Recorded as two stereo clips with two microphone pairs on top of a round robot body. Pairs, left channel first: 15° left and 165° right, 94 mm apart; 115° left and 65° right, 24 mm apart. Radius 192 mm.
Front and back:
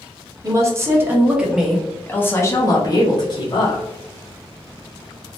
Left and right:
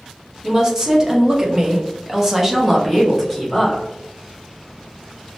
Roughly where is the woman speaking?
Behind right.